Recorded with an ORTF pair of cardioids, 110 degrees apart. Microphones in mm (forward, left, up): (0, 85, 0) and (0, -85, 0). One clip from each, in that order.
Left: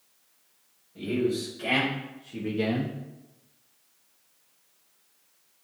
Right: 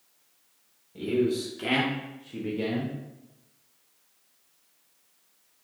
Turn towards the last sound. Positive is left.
turn(degrees=35)